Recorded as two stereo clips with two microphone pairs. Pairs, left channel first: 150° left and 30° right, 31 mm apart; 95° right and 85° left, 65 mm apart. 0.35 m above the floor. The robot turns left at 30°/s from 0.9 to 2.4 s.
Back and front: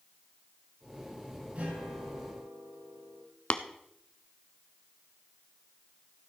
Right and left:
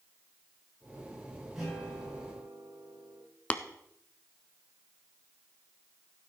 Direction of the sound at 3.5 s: 165° right.